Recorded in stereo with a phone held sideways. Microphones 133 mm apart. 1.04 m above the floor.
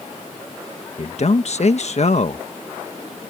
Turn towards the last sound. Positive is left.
turn(degrees=55)  # may be behind; listen again after turning